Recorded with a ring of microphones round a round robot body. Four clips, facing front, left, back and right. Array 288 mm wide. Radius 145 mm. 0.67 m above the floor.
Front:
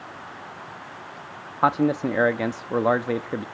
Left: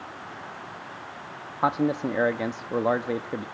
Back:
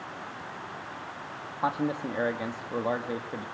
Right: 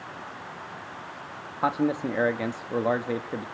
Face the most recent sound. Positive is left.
turn(degrees=10)